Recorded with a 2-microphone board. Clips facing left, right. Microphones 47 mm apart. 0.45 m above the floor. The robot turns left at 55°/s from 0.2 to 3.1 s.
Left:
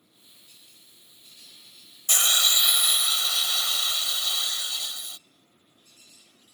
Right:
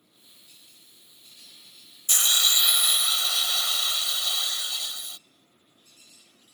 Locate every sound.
2.1 s a hiss: 45° left; by 5.2 s 15° right